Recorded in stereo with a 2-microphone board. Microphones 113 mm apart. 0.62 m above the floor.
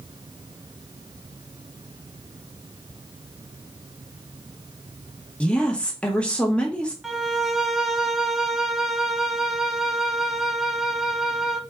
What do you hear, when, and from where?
5.4 s a woman speaking: 10° left (ahead or behind), 0.7 m
7.0 s a violin: 5° right (ahead or behind), 0.5 m